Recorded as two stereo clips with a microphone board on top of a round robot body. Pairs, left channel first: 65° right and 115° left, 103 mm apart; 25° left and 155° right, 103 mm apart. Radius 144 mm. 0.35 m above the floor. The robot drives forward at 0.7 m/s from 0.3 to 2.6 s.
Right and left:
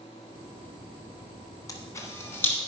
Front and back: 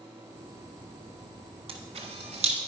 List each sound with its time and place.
1.7 s a camera shutter: 125° right, 1.5 m; by 2.5 s 140° right, 1.9 m